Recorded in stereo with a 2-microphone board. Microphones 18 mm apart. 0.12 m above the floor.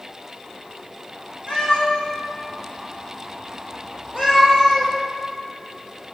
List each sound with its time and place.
1.5 s a cat meowing: 75° left (ahead or behind), 4 m; by 4.9 s centre (ahead or behind), 2.5 m